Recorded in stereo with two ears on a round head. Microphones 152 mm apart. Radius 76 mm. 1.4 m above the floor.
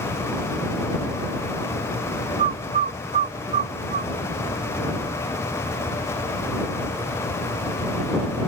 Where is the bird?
40° right (ahead or behind).